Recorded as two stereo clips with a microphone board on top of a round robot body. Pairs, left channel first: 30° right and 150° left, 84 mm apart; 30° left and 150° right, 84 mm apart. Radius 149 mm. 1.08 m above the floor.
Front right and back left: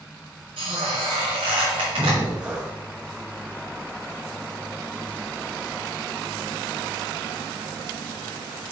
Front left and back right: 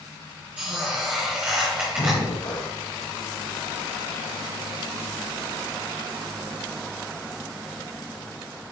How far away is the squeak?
About 1.0 m.